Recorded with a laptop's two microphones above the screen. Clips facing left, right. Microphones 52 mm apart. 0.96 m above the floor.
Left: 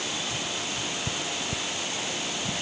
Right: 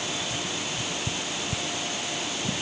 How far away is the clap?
I don't hear a clap.